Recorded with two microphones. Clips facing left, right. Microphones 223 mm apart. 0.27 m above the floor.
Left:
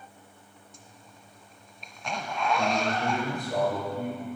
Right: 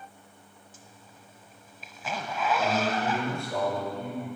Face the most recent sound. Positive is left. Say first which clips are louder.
# right 1 dB
turn(degrees=20)  # may be behind; listen again after turning